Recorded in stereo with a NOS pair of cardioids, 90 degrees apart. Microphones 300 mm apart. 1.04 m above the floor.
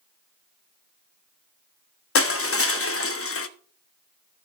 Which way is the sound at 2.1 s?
45° left.